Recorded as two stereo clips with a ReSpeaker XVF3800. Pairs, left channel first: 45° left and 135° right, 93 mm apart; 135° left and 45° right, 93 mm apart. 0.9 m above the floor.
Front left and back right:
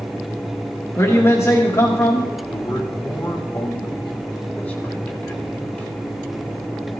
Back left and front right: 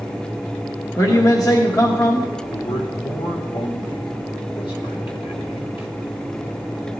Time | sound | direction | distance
1.0 | a man speaking | 95° left | 1.4 m
2.5 | a man speaking | 115° left | 2.5 m